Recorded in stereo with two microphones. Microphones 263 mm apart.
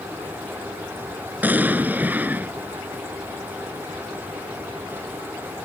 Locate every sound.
1.4 s an explosion: 5° right (ahead or behind)